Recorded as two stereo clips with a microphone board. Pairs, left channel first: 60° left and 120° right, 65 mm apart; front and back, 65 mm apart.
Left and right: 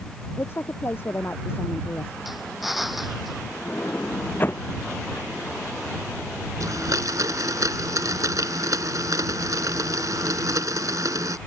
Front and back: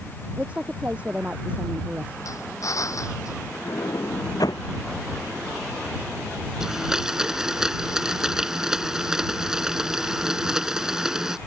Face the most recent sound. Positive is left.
turn(degrees=-100)